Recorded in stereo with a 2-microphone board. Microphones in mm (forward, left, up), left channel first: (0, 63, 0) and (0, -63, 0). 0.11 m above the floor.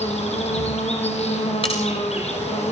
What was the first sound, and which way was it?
An insect, 60° left (ahead or behind).